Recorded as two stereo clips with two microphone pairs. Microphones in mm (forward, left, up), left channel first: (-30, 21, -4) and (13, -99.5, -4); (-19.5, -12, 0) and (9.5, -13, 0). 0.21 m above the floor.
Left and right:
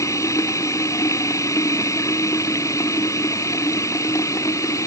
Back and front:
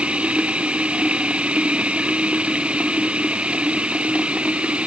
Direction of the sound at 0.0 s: 45° left.